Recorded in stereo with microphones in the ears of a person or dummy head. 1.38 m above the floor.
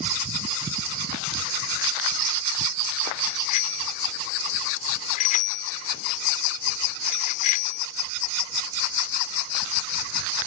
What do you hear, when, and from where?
3.2 s a bicycle bell: 50° left (ahead or behind)